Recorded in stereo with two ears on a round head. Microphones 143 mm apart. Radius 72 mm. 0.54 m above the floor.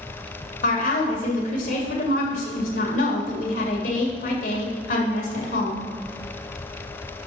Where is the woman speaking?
60° left (ahead or behind), 1.9 m.